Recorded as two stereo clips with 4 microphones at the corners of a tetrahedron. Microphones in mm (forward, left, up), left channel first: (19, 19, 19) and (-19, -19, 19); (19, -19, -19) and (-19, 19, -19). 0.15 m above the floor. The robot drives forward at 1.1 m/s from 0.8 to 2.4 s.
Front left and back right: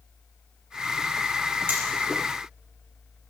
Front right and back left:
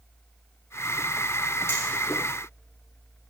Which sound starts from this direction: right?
Hammering, at 1.7 s.